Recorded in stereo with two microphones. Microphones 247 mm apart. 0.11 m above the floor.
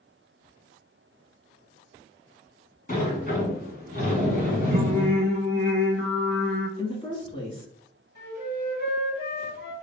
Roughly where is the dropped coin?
No dropped coin in this recording.